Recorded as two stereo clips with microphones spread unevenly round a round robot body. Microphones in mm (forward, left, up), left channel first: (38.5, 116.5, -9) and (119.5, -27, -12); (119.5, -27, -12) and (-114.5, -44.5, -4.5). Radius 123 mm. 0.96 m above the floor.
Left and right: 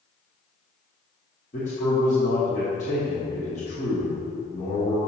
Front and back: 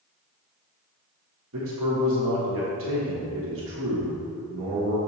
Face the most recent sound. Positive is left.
turn(degrees=170)